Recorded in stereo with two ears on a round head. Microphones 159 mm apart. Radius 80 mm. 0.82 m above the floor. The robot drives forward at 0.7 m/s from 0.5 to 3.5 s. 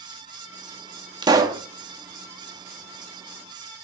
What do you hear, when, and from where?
1.2 s a pop: 25° right (ahead or behind), 0.9 m; by 1.6 s 20° right (ahead or behind), 1.1 m